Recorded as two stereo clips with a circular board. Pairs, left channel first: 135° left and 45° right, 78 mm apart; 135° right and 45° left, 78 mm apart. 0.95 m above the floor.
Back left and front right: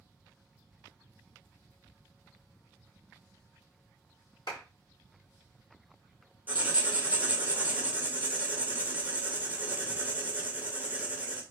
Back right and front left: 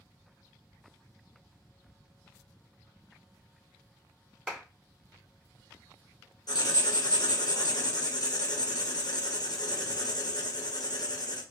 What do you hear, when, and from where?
4.5 s a clap: 135° left, 2.0 m
6.5 s writing: 110° right, 0.9 m